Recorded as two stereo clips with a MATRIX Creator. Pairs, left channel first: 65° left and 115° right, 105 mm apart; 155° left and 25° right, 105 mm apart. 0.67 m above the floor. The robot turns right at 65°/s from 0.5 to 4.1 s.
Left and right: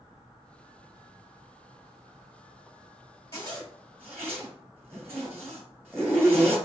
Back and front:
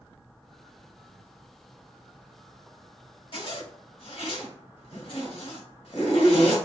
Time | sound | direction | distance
3.3 | a zipper | 130° left | 2 m